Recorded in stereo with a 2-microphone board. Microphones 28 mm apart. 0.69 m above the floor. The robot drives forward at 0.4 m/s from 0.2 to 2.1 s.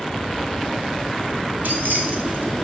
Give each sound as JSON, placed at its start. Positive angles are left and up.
{"t": 1.6, "sound": "keys jangling", "side_deg": -75, "distance_m": 2.5}